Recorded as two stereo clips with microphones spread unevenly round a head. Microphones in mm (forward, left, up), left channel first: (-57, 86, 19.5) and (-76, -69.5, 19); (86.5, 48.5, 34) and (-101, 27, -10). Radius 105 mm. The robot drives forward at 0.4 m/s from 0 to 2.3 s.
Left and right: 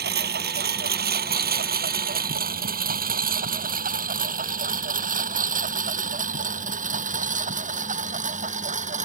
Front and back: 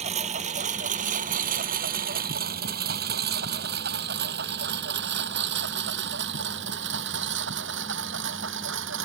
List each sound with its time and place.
0.0 s a lawn mower: 110° right; by 9.1 s 140° right